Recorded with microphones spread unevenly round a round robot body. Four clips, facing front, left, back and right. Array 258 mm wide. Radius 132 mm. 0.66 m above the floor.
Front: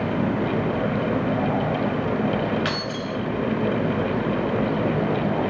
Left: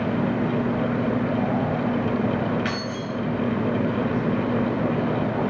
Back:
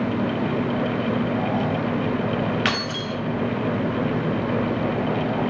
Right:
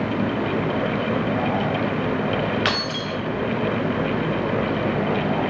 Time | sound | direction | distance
2.6 | keys jangling | 120° right | 0.9 m